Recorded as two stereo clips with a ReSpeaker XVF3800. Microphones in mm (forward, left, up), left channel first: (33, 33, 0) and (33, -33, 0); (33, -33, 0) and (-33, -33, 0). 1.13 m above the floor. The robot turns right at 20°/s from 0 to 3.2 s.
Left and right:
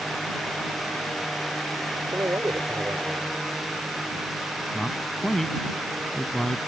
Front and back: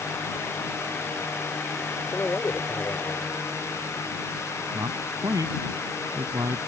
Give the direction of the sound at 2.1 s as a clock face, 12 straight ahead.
2 o'clock.